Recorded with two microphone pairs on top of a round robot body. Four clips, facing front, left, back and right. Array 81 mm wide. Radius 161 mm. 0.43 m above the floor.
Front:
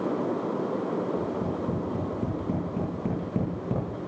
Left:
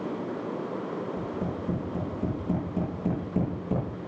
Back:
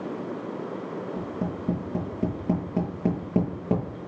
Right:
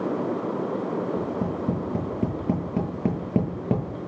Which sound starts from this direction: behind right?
Tapping, at 1.2 s.